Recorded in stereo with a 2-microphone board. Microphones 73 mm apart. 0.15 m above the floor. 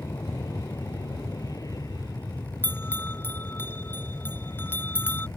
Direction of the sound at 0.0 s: 55° left (ahead or behind).